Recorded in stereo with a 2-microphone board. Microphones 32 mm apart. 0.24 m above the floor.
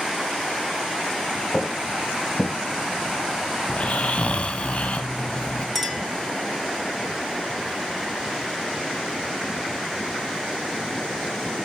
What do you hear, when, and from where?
1.5 s footsteps: 30° left (ahead or behind), 1.4 m; by 2.5 s 50° left (ahead or behind), 1.2 m
3.7 s snoring: 45° left (ahead or behind), 0.8 m
5.8 s a clink: 5° left (ahead or behind), 2 m